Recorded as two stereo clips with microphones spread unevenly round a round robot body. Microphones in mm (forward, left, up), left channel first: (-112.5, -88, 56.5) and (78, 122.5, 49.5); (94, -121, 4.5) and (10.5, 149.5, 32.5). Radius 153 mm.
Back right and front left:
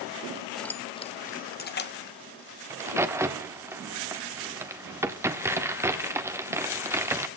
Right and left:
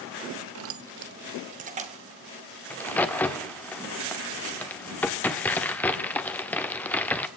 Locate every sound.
0.6 s keys jangling: 135° left, 0.8 m; by 2.0 s straight behind, 1.8 m
2.7 s a crack: 15° right, 1.4 m